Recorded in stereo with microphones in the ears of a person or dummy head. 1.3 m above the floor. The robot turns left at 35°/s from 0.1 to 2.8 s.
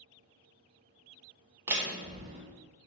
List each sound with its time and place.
1.7 s a door slam: 15° right (ahead or behind), 0.8 m; by 2.4 s 35° right (ahead or behind), 0.8 m